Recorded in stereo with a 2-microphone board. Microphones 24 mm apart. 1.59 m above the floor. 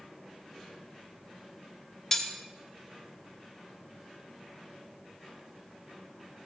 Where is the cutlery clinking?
15° left (ahead or behind), 1.0 m.